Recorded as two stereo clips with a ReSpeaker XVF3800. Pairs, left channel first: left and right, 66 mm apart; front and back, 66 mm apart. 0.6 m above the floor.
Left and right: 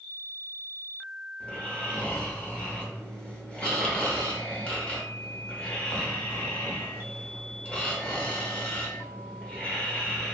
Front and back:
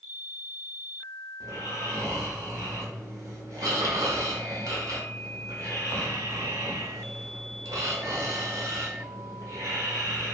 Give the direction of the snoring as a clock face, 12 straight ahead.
7 o'clock.